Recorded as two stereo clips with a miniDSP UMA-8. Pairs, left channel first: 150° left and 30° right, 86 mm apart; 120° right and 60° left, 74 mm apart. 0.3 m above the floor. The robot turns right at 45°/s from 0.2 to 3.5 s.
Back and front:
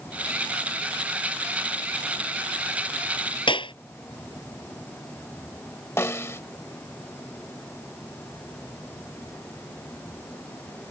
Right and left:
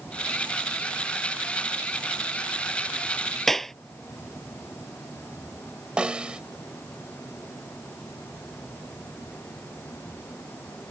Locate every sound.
3.5 s a clap: 155° left
6.0 s a snare drum: 125° left